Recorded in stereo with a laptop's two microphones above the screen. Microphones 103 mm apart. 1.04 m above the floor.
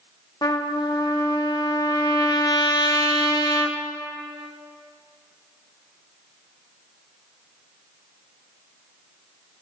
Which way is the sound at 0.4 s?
40° left (ahead or behind).